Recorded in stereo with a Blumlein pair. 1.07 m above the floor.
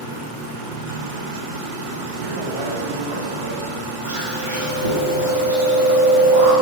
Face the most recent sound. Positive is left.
turn(degrees=-70)